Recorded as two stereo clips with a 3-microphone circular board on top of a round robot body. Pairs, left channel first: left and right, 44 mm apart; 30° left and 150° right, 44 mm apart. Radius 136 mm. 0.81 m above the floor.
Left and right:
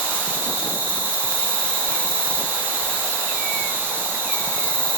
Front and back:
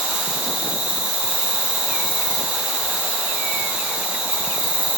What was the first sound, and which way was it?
An insect, 95° right.